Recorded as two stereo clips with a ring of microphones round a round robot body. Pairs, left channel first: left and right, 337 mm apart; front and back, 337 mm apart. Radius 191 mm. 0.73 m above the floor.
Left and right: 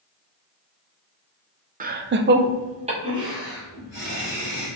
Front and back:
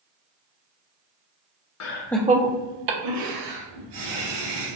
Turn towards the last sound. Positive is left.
turn(degrees=-175)